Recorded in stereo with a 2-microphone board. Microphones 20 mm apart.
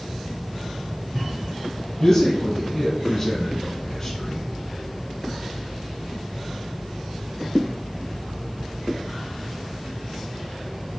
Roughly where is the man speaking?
Left.